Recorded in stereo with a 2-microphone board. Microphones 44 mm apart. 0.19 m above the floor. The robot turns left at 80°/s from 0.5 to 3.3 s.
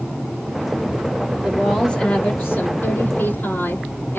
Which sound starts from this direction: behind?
A woman speaking, at 1.4 s.